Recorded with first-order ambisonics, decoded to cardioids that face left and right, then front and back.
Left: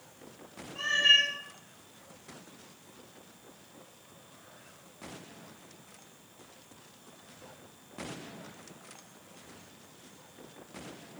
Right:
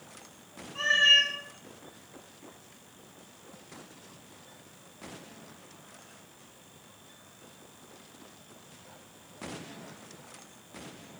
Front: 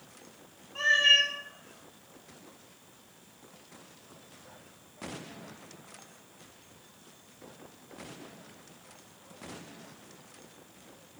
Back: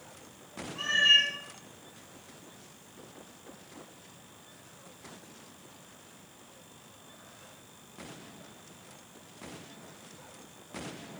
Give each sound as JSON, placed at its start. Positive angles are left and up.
{"t": 0.8, "sound": "a cat meowing", "azimuth_deg": -40, "distance_m": 1.4}